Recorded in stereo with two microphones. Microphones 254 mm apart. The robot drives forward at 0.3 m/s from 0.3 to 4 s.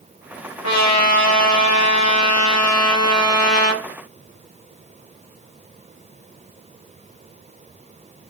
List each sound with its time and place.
0.6 s a trumpet: 70° left (ahead or behind), 1.3 m; by 3.8 s 60° left (ahead or behind), 1.4 m